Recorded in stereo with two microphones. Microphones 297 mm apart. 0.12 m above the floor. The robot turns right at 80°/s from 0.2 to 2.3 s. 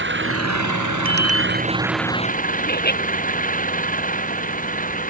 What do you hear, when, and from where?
0.0 s an engine running: 140° right; by 5.1 s 25° left
1.1 s a bicycle bell: 45° right; by 1.7 s 5° left
2.7 s laughter: 30° left (ahead or behind)